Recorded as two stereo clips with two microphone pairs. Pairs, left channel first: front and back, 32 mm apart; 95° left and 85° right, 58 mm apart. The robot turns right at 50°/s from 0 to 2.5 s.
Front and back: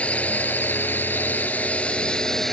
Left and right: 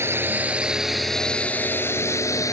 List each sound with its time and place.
0.0 s a drone: 45° right; by 2.5 s 80° left